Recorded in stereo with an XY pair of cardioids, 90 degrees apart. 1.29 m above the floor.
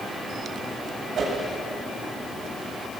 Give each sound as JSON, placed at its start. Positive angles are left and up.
{"t": 1.2, "sound": "a whoosh", "azimuth_deg": -65, "distance_m": 6.5}